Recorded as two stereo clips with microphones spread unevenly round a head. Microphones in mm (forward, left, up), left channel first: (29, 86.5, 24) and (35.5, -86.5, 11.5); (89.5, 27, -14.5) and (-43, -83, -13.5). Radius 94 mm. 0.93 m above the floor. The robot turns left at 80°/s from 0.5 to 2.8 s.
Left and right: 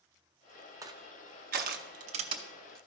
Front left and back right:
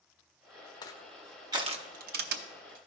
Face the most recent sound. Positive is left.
turn(degrees=180)